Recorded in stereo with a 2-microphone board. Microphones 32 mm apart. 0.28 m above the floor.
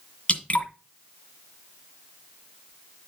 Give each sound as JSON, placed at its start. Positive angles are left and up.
{"t": 0.3, "sound": "dripping", "side_deg": 40, "distance_m": 1.8}